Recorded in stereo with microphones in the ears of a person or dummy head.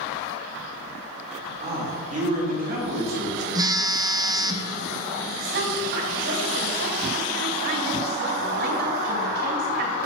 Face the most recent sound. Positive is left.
turn(degrees=-55)  # may be behind; listen again after turning